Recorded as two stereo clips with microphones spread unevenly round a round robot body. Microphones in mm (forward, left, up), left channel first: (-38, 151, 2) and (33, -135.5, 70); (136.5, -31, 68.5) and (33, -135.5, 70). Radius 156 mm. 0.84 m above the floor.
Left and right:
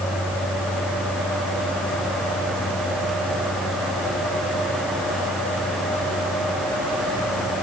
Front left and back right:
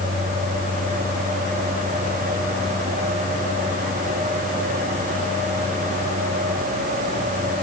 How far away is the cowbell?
I don't hear a cowbell.